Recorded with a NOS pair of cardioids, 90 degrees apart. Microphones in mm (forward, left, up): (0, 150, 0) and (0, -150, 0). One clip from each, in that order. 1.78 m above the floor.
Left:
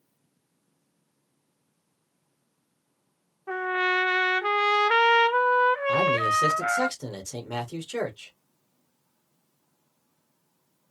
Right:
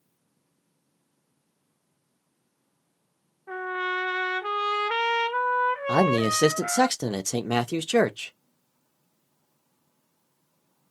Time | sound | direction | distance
3.5 | a trumpet | 25° left | 0.6 m
5.9 | a man speaking | 55° right | 1.1 m